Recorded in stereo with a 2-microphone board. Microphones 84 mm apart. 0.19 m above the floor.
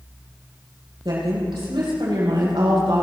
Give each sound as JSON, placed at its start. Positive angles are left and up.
{"t": 1.1, "sound": "a woman speaking", "side_deg": -70, "distance_m": 6.5}